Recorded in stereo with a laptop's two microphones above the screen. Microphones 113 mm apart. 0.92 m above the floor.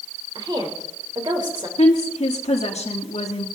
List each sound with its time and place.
0.3 s a woman speaking: 40° right (ahead or behind), 3 m
1.8 s a woman speaking: 70° left (ahead or behind), 1.4 m